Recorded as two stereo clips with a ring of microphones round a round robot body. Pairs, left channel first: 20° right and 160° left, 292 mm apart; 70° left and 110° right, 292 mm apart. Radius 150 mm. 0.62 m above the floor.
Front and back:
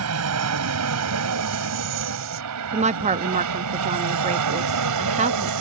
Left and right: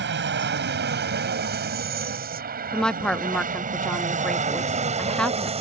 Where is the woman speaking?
150° left.